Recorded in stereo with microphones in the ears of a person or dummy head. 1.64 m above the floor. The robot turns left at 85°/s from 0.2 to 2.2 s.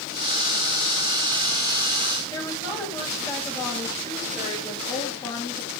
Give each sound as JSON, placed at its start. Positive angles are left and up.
{"t": 2.3, "sound": "a woman speaking", "side_deg": 20, "distance_m": 9.5}